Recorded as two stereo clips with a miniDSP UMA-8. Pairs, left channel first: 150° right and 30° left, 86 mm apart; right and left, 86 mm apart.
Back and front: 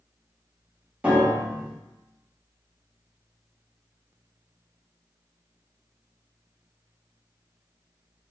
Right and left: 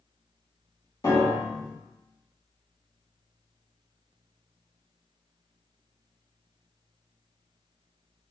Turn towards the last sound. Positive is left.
turn(degrees=-50)